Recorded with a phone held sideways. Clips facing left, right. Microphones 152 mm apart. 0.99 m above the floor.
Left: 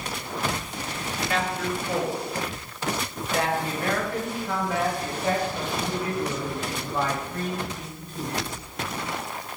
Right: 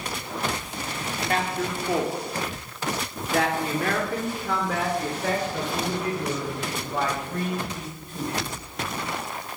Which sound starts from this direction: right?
A man speaking, at 1.3 s.